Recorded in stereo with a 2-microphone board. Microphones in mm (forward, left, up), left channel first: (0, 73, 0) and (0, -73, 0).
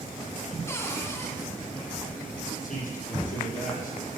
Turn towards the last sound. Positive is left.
turn(degrees=65)  # may be behind; listen again after turning